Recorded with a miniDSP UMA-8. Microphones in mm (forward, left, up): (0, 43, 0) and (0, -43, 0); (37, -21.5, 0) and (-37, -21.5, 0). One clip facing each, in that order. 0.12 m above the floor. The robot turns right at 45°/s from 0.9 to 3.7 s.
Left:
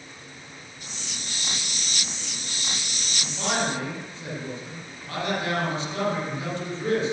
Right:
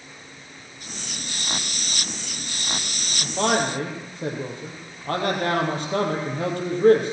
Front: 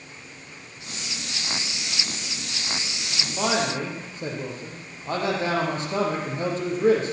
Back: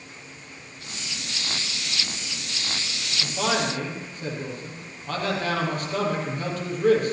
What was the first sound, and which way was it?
A man speaking, 85° right.